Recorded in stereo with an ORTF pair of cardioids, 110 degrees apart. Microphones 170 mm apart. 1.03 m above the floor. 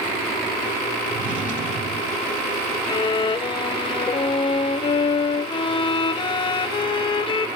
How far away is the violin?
About 0.8 m.